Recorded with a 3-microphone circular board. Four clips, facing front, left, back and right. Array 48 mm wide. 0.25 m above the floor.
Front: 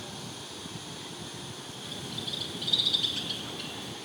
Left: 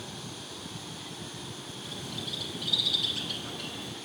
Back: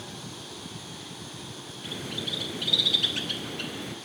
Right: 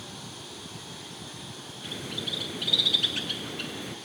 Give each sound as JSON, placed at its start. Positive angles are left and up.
{"t": 1.8, "sound": "a bird", "azimuth_deg": -130, "distance_m": 1.6}